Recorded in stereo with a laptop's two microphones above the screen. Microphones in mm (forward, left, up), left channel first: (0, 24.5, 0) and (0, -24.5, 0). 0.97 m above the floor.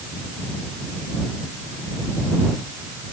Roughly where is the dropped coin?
I don't hear a dropped coin.